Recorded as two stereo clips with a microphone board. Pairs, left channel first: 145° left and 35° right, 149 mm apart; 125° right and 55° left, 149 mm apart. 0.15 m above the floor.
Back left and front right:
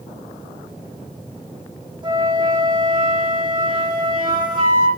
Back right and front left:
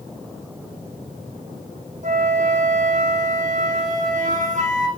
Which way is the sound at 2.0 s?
25° left.